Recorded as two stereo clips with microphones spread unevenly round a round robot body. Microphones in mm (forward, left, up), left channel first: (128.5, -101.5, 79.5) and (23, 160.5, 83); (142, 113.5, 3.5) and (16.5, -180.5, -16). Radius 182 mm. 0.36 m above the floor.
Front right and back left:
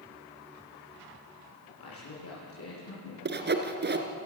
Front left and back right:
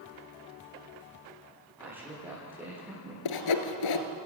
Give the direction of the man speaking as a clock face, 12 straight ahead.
1 o'clock.